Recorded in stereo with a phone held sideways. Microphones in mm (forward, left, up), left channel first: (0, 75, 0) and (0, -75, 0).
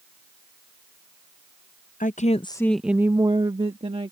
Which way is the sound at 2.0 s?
60° left (ahead or behind).